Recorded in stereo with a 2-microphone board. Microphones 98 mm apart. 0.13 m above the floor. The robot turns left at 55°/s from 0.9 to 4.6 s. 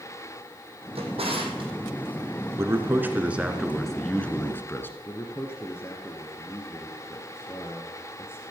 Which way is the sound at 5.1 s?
25° left (ahead or behind).